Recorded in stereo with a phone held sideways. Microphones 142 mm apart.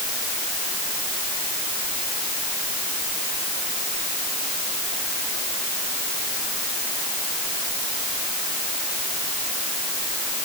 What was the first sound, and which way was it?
Only background noise.